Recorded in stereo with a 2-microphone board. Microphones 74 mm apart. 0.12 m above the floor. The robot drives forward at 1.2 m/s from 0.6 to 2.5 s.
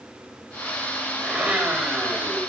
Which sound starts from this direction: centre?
A blender, at 1.2 s.